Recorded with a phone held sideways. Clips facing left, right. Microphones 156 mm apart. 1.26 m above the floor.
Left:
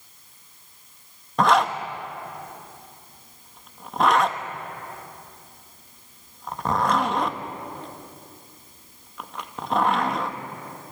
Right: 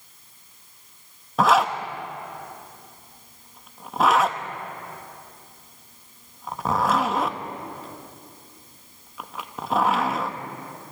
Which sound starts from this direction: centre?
A zipper, at 1.4 s.